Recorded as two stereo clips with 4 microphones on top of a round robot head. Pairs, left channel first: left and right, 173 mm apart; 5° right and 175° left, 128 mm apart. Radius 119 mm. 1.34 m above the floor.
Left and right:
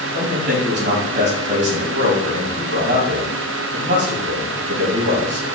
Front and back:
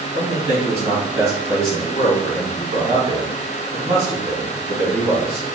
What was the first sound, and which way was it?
A man speaking, 115° right.